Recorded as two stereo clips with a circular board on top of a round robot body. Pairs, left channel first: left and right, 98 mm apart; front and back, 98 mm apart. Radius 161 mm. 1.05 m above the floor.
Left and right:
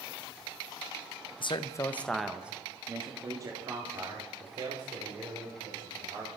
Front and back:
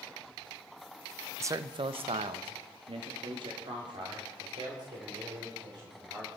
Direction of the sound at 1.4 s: 120° left.